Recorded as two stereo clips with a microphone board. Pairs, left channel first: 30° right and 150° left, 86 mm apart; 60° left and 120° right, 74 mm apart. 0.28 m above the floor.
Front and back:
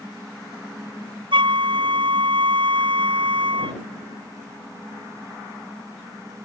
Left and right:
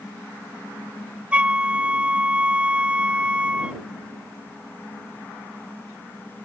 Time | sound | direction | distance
1.3 | a flute | 165° left | ?